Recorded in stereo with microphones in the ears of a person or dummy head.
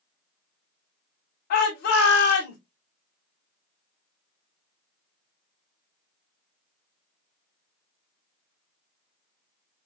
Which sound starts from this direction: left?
A shout, at 1.5 s.